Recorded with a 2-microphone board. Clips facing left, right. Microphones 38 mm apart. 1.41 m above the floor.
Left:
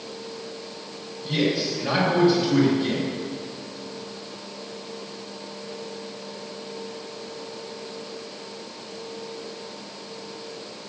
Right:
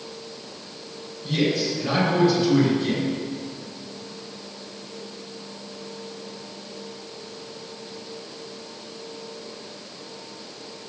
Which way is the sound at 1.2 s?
10° left (ahead or behind).